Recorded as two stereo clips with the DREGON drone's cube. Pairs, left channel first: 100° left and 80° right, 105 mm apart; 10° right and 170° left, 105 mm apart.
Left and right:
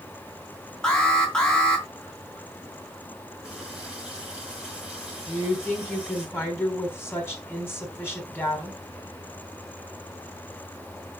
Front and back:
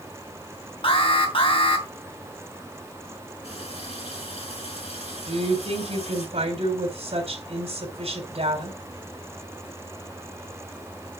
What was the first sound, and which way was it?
An alarm, 20° left.